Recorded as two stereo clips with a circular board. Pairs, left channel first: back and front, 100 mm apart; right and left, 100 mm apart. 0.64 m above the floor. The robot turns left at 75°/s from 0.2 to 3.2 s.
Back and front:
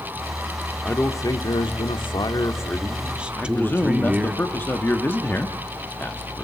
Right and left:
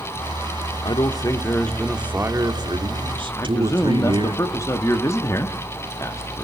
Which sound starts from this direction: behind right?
A man speaking, at 3.4 s.